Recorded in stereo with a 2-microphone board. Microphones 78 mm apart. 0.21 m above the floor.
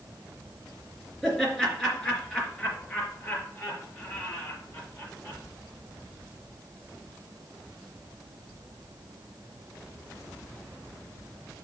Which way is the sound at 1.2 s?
5° left (ahead or behind).